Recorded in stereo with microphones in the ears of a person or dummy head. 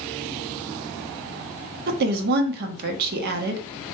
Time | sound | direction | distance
1.9 | a woman speaking | 50° right (ahead or behind) | 1.1 m